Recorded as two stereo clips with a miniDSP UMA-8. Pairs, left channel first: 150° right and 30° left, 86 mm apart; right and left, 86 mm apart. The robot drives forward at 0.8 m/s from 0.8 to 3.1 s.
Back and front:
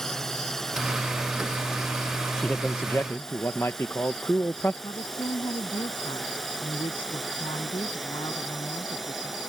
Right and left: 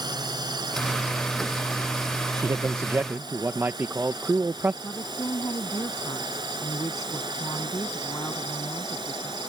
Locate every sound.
0.0 s a drone: 125° left; by 9.5 s 120° left
2.4 s a man speaking: 130° left; by 4.7 s 150° left
4.8 s a woman speaking: 140° right